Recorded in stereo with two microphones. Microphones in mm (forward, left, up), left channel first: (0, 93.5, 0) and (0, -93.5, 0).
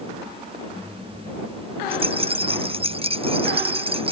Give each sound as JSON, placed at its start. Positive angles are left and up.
{"t": 1.9, "sound": "a rattle", "side_deg": -30}